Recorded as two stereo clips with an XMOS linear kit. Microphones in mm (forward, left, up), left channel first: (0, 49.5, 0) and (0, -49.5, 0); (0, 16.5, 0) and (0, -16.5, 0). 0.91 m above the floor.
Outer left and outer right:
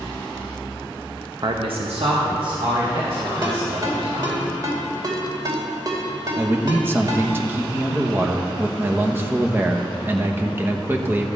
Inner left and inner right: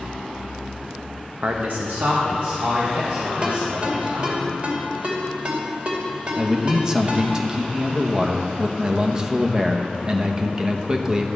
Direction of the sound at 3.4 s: 40° right (ahead or behind).